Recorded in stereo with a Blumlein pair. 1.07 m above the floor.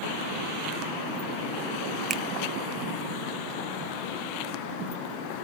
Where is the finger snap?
25° right, 0.6 m.